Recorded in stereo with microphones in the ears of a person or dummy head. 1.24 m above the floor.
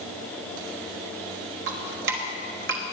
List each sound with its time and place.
1.7 s dripping: 55° right (ahead or behind), 1.3 m